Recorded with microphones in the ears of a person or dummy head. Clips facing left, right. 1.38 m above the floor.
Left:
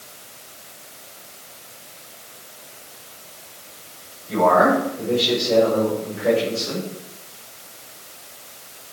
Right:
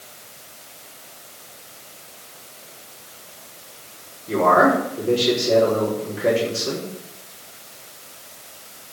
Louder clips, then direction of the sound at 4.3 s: Even; 55° right (ahead or behind).